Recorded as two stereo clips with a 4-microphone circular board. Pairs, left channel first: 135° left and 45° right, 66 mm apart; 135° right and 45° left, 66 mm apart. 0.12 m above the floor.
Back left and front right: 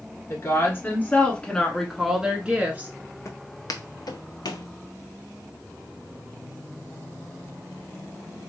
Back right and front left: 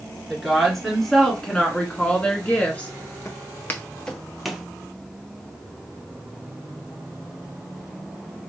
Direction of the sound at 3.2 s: 175° left.